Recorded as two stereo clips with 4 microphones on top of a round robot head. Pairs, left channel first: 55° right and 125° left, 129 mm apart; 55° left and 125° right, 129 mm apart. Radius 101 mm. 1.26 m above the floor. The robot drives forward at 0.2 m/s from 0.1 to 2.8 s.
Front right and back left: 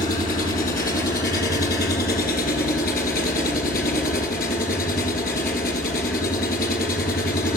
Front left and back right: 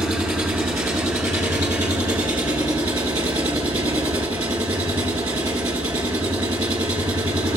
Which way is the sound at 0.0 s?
45° right.